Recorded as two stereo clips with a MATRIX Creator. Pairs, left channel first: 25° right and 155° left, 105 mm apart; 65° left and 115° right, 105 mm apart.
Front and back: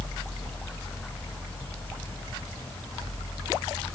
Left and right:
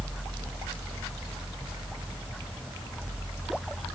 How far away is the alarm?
No alarm in this recording.